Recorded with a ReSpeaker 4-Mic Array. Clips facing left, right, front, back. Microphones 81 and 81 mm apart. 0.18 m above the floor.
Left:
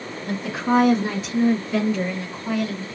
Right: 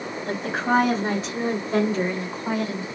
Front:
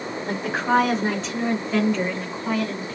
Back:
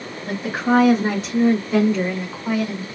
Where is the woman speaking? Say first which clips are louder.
Left 1 dB, back 2 dB; 95° right, 2.5 m; by 3.0 s 125° right, 1.9 m.